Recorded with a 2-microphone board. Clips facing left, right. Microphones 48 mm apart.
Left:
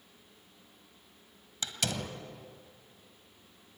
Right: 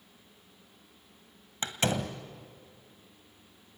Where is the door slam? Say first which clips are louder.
Right 5 dB; 35° right (ahead or behind), 1.6 m.